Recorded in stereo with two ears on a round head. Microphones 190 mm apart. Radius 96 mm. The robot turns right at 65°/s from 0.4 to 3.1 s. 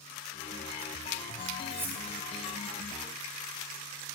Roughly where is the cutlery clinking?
Right.